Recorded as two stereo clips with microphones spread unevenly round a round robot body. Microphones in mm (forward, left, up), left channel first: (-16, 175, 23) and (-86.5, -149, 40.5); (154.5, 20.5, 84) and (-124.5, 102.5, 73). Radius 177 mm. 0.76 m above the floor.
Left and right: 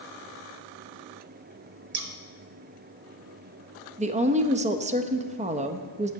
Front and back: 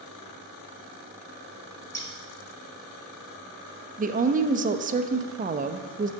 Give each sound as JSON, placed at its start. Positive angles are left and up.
{"t": 1.9, "sound": "scissors", "azimuth_deg": -90, "distance_m": 0.6}
{"t": 4.0, "sound": "a woman speaking", "azimuth_deg": -160, "distance_m": 0.6}